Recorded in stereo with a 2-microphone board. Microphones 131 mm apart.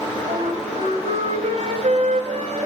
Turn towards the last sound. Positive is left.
turn(degrees=-65)  # may be behind; listen again after turning